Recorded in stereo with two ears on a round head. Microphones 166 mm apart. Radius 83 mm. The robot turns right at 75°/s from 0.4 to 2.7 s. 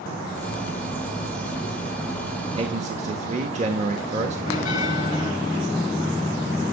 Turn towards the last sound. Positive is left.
turn(degrees=45)  # may be behind; listen again after turning